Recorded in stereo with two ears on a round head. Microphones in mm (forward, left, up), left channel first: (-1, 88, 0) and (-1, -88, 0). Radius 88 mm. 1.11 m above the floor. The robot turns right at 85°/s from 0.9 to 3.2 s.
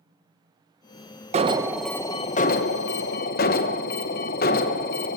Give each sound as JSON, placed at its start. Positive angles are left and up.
{"t": 1.3, "sound": "an alarm", "azimuth_deg": -40, "distance_m": 0.9}